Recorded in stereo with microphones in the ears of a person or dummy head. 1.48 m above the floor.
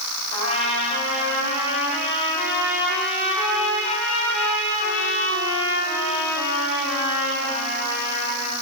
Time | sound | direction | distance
0.3 | a trumpet | 35° left (ahead or behind) | 4.5 m